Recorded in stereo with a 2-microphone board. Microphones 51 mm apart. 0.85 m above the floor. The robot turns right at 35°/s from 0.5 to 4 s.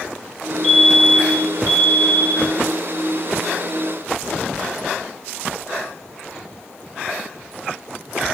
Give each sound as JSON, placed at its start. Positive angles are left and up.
{"t": 0.6, "sound": "a fire alarm", "azimuth_deg": 15, "distance_m": 5.0}